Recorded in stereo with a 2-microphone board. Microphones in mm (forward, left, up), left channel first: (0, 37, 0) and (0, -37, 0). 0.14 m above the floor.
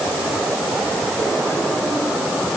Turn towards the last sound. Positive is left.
No sound to turn to.